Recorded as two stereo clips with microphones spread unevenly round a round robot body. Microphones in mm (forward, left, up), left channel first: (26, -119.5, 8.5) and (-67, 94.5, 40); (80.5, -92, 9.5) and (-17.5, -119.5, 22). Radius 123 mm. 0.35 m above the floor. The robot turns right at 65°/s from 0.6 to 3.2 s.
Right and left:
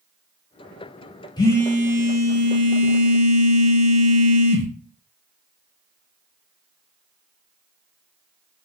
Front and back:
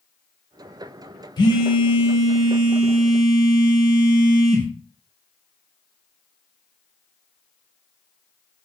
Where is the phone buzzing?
5° right, 0.6 m; by 4.7 s 115° left, 0.6 m.